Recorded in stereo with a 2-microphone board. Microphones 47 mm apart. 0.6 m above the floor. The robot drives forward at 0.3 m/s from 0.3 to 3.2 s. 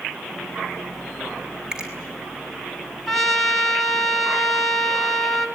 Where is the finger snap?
15° right (ahead or behind), 5.5 m.